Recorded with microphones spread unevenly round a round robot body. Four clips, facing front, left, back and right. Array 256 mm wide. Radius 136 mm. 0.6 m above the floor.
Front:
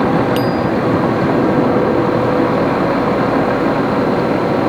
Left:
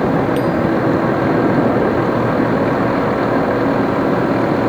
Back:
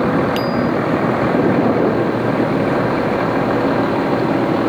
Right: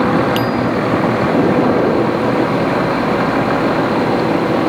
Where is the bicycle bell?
125° right.